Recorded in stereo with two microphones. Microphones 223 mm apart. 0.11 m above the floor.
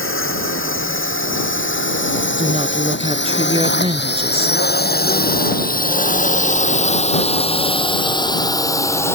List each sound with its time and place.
0.0 s a drone: 70° left (ahead or behind); by 9.2 s 10° left (ahead or behind)
2.4 s a woman speaking: 25° right (ahead or behind)